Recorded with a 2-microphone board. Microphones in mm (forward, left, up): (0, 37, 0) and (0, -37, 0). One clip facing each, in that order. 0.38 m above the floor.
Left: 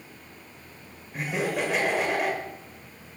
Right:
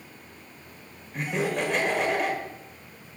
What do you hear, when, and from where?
1.1 s laughter: 5° left (ahead or behind), 1.1 m